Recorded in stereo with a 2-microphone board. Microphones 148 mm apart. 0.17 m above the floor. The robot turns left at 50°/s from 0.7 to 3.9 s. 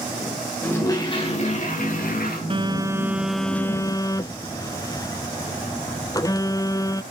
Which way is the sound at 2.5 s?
135° right.